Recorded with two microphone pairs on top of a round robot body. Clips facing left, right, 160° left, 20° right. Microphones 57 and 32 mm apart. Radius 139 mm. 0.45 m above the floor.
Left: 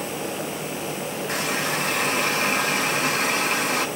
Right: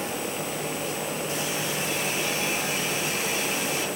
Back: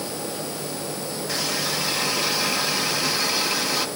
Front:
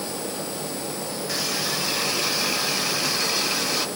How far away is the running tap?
About 1.7 m.